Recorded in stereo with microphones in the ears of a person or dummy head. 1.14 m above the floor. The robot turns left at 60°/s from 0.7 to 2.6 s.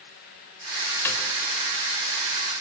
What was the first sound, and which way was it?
A snare drum, 10° left (ahead or behind).